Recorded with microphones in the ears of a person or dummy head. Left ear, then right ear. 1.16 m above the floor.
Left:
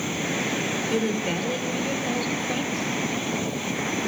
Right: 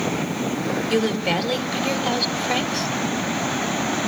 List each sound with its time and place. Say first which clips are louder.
0.9 s a woman speaking: right 7 dB; 30° right (ahead or behind), 2.5 m